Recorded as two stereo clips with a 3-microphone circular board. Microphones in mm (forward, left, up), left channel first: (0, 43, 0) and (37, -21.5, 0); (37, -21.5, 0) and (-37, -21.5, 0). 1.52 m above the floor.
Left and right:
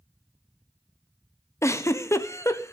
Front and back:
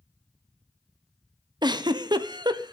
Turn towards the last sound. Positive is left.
turn(degrees=170)